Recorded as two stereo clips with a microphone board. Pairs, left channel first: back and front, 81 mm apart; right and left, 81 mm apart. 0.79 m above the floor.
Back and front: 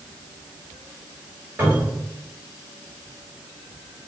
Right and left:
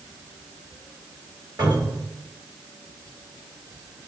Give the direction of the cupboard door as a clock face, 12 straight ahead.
10 o'clock.